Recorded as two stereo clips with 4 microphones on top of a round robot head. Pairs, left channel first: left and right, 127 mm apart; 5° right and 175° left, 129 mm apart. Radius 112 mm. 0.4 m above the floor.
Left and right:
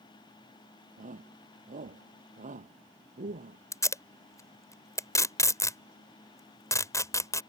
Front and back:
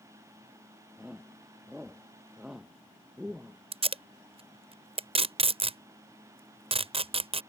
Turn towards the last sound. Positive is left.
turn(degrees=150)